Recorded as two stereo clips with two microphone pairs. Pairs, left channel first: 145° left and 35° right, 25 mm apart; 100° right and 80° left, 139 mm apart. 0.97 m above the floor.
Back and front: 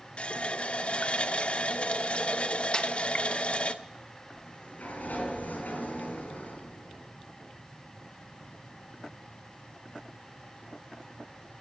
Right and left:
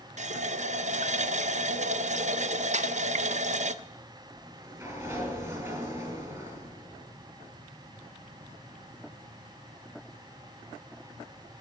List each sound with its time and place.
0.2 s a running tap: 110° left, 0.7 m
2.7 s a snare drum: 100° left, 1.1 m
4.3 s a sliding door: 145° left, 5 m